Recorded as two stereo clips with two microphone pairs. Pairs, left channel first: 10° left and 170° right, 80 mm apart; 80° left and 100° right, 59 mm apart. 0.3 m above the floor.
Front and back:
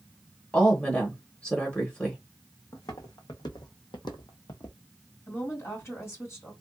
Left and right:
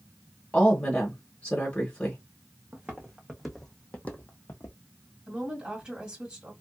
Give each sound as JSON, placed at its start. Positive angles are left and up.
{"t": 0.5, "sound": "a woman speaking", "azimuth_deg": 55, "distance_m": 1.0}
{"t": 2.7, "sound": "footsteps", "azimuth_deg": -30, "distance_m": 1.2}
{"t": 5.3, "sound": "a woman speaking", "azimuth_deg": -35, "distance_m": 1.6}